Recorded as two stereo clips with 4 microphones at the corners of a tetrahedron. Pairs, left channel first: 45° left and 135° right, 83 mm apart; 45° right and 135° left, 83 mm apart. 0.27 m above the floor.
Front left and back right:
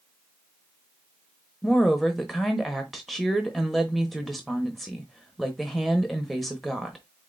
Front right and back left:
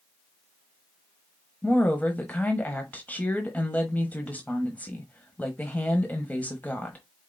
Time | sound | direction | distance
1.6 | a woman speaking | 45° right | 1.0 m